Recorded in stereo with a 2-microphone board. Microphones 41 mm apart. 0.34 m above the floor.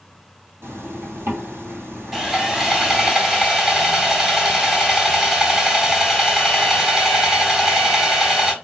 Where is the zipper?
85° right, 1.7 m.